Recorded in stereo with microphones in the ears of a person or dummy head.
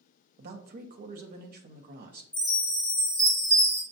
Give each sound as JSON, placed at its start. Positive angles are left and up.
{"t": 0.4, "sound": "a man speaking", "side_deg": -45, "distance_m": 0.6}
{"t": 2.3, "sound": "a chime", "side_deg": 5, "distance_m": 2.0}